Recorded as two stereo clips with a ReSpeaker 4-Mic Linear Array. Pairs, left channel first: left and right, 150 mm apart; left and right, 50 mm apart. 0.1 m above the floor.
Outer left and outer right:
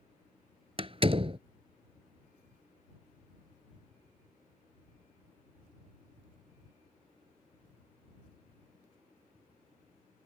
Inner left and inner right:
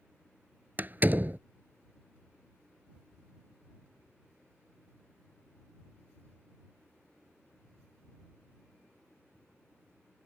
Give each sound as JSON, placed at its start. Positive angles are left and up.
{"t": 0.8, "sound": "a door slam", "side_deg": -40}